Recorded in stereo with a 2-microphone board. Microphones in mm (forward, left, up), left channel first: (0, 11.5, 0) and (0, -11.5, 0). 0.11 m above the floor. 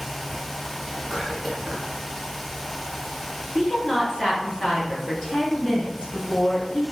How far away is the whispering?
About 1.8 m.